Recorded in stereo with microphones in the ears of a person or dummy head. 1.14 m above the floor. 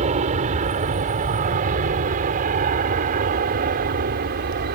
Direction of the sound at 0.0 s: 40° right (ahead or behind).